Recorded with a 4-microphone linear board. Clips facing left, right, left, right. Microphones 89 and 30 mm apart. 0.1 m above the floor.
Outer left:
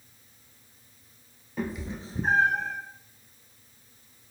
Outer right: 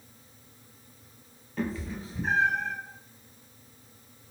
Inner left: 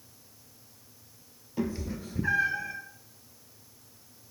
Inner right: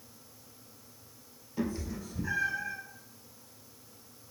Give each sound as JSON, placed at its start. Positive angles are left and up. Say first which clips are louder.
{"t": 1.6, "sound": "a cat meowing", "louder": "outer right 1 dB, inner left 2 dB", "side_deg": 10, "distance_m": 1.0}